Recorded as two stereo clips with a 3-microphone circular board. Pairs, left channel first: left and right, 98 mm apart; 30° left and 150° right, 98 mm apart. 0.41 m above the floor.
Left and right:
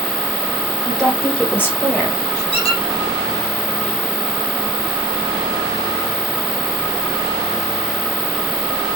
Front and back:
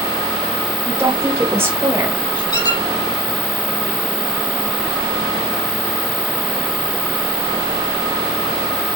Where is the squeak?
75° left, 3 m.